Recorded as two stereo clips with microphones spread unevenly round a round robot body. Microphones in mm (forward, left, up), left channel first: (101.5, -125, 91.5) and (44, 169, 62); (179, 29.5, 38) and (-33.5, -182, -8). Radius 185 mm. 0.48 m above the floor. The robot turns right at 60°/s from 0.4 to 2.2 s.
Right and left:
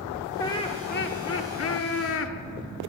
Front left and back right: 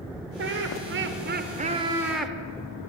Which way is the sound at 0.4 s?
160° right.